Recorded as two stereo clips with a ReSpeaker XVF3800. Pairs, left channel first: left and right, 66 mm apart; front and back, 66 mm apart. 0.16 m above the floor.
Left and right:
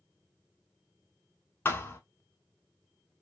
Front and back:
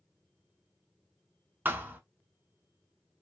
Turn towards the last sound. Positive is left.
turn(degrees=130)